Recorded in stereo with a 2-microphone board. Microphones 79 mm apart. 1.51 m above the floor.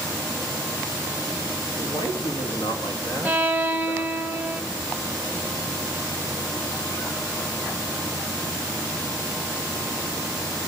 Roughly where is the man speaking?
Left.